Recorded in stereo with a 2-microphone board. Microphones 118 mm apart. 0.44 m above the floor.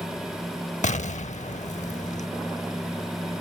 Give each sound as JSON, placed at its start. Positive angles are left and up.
{"t": 0.8, "sound": "an explosion", "side_deg": 80}